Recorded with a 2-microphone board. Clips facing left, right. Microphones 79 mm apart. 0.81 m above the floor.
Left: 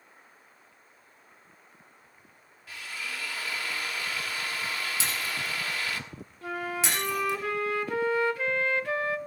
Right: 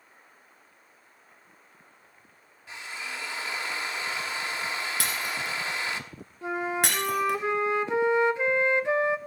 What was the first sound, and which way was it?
A drill, 25° right (ahead or behind).